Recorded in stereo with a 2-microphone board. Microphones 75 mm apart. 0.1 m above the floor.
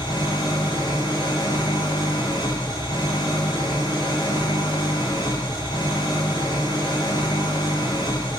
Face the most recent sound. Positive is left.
turn(degrees=80)